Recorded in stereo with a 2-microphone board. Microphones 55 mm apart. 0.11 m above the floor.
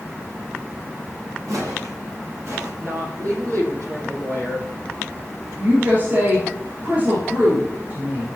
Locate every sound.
1.5 s footsteps: 75° right (ahead or behind), 5 m; by 2.7 s 55° right (ahead or behind), 5.5 m
2.8 s a woman speaking: 65° right (ahead or behind), 4 m
5.6 s a woman speaking: 35° right (ahead or behind), 5 m